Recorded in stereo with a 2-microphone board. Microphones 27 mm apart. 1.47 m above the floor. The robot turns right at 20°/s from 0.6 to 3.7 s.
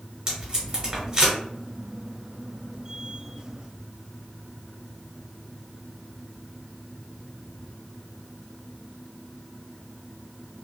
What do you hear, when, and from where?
0.3 s tape being pulled: 30° right (ahead or behind), 1.4 m; by 1.4 s 25° right (ahead or behind), 1.4 m